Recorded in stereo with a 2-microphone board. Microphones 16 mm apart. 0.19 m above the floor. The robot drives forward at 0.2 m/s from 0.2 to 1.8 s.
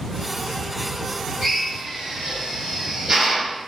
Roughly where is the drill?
Right.